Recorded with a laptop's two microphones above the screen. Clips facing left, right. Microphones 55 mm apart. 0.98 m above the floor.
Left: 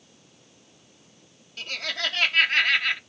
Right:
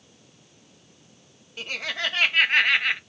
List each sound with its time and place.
1.6 s laughter: 15° right (ahead or behind), 0.9 m